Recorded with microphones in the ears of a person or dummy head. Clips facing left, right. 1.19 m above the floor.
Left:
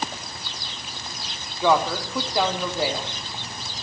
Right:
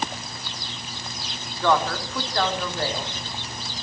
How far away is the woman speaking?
About 3.5 m.